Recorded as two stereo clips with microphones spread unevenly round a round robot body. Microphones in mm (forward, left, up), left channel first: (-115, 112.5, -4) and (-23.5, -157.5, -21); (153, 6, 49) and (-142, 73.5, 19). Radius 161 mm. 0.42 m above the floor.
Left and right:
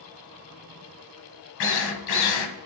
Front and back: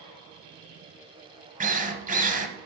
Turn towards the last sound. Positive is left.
turn(degrees=100)